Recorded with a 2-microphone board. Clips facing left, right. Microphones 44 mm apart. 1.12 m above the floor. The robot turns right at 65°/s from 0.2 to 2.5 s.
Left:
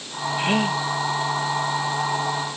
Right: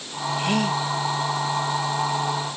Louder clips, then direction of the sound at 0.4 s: Left 1 dB; 30° left (ahead or behind).